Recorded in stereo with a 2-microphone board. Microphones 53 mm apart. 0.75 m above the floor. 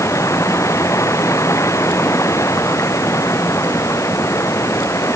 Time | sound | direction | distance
0.0 | running water | 65° left (ahead or behind) | ?